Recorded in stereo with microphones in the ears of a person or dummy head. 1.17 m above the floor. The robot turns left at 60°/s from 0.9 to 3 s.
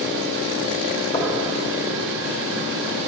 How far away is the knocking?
About 2.5 m.